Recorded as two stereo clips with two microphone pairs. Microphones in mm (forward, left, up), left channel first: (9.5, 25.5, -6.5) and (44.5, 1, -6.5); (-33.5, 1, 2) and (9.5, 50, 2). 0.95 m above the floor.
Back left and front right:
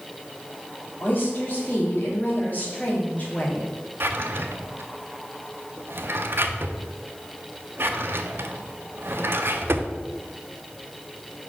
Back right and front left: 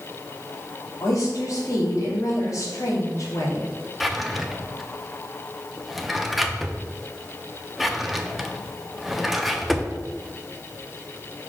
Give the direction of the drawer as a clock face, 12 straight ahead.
1 o'clock.